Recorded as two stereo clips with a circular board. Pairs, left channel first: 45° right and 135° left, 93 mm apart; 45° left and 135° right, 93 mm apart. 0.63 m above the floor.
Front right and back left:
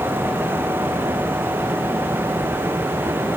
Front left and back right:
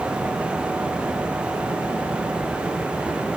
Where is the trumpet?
No trumpet in this recording.